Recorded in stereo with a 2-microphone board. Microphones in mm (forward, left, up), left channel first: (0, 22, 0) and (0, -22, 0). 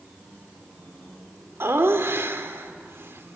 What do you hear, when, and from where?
1.6 s laughter: 65° right (ahead or behind), 1.8 m